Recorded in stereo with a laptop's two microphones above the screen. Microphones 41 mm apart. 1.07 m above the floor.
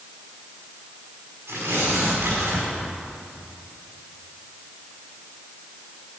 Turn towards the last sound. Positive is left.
turn(degrees=-80)